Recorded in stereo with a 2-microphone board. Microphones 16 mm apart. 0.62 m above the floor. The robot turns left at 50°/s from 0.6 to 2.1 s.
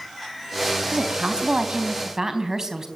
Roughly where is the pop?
I don't hear a pop.